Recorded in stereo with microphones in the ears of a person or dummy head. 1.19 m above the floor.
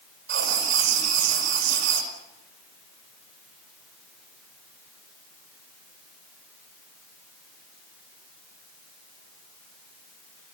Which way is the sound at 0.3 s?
80° right.